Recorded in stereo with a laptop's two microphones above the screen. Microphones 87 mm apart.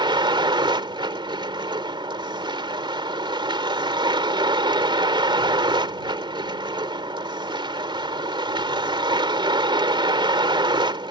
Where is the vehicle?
65° right (ahead or behind).